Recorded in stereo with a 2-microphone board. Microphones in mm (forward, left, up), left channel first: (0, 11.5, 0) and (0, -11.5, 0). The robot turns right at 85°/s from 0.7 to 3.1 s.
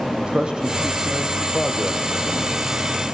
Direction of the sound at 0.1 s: 45° right.